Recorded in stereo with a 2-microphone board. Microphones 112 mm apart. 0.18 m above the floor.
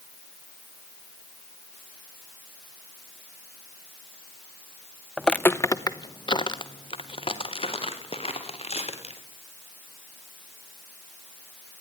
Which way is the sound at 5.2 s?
Centre (ahead or behind).